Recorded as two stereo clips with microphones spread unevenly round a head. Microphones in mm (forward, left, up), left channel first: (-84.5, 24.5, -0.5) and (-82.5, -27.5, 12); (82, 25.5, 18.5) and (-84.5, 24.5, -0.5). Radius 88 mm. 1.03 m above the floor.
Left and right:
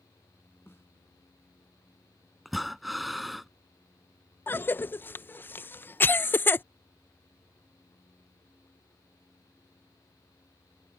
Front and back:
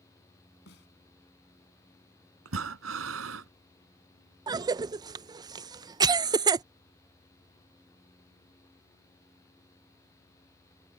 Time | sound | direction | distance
0.7 | a snare drum | 15° left | ?
2.5 | breathing | 170° right | ?
4.5 | a cough | 120° left | ?